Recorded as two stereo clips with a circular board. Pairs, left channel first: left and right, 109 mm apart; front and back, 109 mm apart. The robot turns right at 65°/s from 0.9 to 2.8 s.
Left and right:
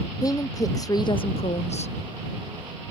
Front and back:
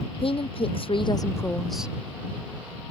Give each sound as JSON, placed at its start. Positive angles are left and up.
{"t": 0.2, "sound": "a woman speaking", "azimuth_deg": 35}